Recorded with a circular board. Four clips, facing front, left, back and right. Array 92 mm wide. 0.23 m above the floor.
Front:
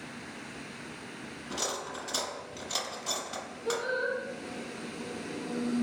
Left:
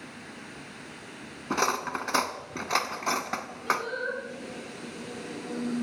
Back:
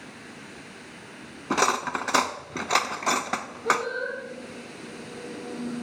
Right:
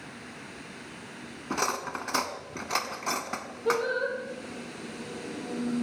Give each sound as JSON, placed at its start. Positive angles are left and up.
{"t": 1.5, "sound": "cutlery clinking", "azimuth_deg": 165, "distance_m": 1.1}
{"t": 3.6, "sound": "singing", "azimuth_deg": -115, "distance_m": 8.5}